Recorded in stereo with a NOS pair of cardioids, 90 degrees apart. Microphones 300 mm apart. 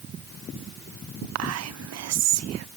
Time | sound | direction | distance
1.4 | whispering | 55° right | 0.6 m